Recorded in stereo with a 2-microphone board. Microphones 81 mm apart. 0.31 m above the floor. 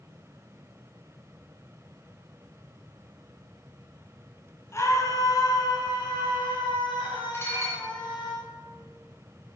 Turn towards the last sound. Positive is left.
turn(degrees=30)  # may be behind; listen again after turning